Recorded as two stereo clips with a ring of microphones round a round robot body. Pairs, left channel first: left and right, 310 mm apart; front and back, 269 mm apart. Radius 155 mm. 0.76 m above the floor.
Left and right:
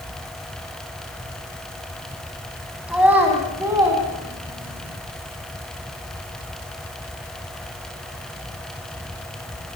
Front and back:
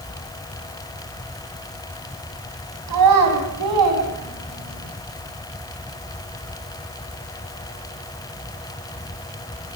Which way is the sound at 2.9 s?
175° right.